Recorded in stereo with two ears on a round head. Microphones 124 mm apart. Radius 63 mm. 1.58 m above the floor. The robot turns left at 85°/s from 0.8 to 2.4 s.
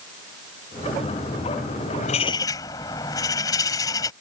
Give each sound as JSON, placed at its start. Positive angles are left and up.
{"t": 2.0, "sound": "a bird", "azimuth_deg": 60}